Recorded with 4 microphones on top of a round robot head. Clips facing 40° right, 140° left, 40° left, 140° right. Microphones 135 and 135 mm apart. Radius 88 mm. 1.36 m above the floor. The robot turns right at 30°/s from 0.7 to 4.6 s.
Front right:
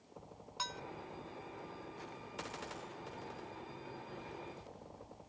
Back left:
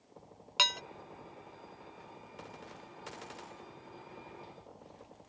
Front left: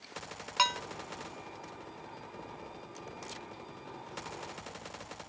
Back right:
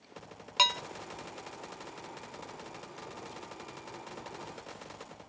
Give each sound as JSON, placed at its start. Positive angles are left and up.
{"t": 0.6, "sound": "dishes clattering", "azimuth_deg": 155}